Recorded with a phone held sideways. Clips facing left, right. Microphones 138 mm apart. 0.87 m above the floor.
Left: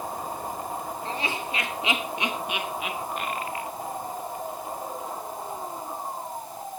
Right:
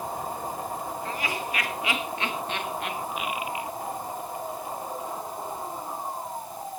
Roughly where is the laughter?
Left.